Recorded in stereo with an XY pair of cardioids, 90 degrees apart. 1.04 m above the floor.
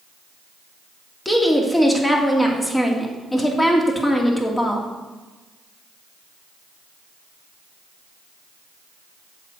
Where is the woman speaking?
15° left, 2.5 m.